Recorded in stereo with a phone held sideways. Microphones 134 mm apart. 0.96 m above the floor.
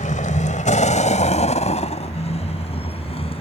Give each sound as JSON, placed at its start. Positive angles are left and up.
{"t": 0.0, "sound": "a vehicle", "side_deg": 85}